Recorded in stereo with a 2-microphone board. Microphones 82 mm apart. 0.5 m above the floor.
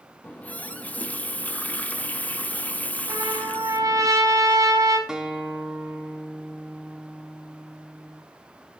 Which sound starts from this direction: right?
A trumpet, at 3.1 s.